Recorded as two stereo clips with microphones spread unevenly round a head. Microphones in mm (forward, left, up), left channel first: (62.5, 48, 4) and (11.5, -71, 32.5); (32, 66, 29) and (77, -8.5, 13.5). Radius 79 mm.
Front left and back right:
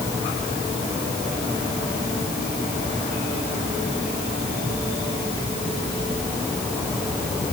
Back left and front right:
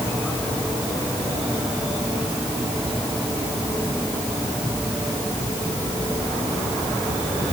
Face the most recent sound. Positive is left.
No sound to turn to.